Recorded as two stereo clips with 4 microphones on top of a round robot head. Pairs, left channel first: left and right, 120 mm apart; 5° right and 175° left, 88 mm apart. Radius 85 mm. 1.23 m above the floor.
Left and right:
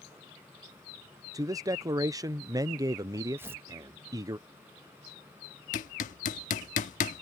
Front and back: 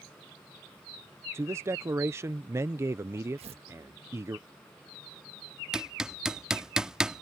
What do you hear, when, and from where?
1.3 s a man speaking: 140° right
3.4 s tearing paper: 160° right
5.7 s hammering: 95° left